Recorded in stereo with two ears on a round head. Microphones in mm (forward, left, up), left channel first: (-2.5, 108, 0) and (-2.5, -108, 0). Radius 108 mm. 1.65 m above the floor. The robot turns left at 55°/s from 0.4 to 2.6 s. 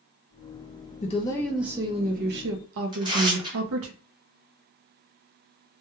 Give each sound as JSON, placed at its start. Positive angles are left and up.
{"t": 1.0, "sound": "a woman speaking", "azimuth_deg": 30, "distance_m": 0.6}
{"t": 2.9, "sound": "tearing paper", "side_deg": -20, "distance_m": 0.9}